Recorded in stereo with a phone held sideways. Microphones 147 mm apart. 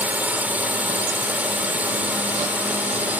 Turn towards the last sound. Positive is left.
turn(degrees=-10)  # may be behind; listen again after turning